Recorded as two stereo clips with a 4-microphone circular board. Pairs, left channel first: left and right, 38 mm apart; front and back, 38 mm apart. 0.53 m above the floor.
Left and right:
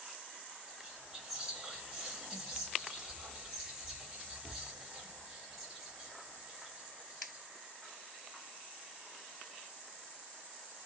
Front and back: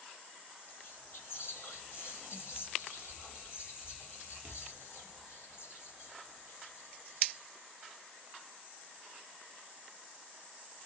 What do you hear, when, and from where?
0.7 s whispering: 10° right, 2.5 m